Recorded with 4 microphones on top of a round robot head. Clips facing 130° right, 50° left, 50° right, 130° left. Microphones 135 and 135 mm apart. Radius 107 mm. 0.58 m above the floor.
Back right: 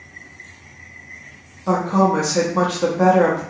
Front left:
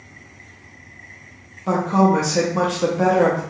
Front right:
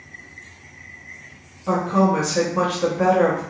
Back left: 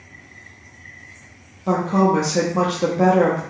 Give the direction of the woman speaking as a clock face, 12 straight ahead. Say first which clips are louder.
Even, back left 1 dB; 8 o'clock.